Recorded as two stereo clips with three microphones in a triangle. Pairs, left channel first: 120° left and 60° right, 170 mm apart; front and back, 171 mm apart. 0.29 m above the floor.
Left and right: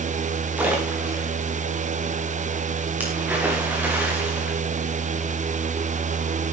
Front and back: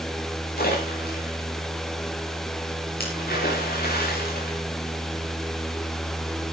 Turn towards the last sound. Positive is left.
turn(degrees=20)